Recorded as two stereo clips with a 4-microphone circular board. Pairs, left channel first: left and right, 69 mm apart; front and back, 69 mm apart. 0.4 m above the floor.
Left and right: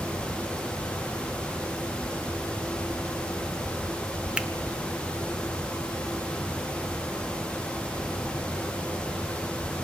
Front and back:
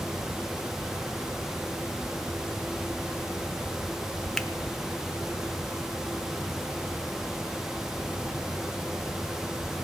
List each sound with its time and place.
4.4 s a finger snap: 65° right, 0.5 m